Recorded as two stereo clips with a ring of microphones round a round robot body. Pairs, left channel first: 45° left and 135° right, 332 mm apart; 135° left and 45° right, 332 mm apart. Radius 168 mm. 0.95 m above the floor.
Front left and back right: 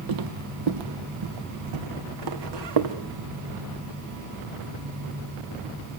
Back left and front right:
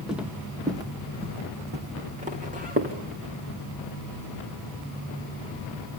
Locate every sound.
0.1 s footsteps: 135° right, 1.6 m; by 3.0 s 110° right, 3.5 m